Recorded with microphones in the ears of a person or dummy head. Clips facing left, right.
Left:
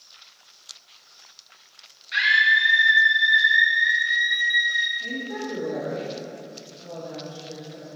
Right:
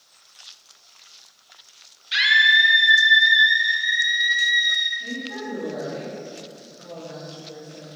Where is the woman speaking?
5° right (ahead or behind), 2.5 m.